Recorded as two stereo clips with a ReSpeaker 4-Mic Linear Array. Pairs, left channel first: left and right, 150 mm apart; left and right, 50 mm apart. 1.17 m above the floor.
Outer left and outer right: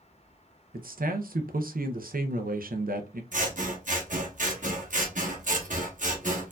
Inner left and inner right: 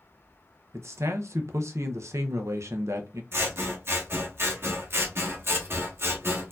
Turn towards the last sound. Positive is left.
turn(degrees=-60)  # may be behind; listen again after turning